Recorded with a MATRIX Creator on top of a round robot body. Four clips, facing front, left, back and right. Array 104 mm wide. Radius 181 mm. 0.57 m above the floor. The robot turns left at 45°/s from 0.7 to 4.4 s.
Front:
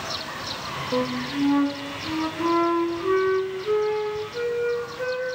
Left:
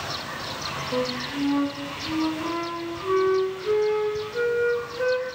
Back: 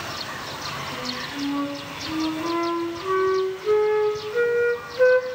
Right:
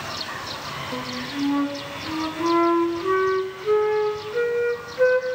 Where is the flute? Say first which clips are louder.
Left 4 dB, front 7 dB; 10° left, 1.3 m; by 5.4 s 150° right, 1.3 m.